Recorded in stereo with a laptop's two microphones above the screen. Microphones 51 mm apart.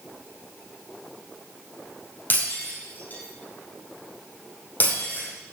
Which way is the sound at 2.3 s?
35° left (ahead or behind).